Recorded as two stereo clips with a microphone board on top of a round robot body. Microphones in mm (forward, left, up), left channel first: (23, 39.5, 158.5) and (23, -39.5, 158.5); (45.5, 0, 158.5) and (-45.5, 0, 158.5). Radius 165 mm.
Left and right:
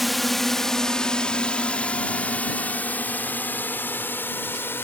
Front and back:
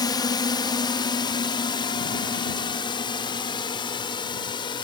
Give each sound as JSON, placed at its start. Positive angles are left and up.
{"t": 0.0, "sound": "a drone", "azimuth_deg": 0}